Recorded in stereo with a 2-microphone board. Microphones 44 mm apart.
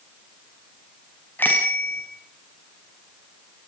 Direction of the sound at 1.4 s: 50° left (ahead or behind).